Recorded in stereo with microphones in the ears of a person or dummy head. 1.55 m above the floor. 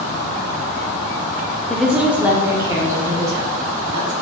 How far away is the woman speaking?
About 0.5 m.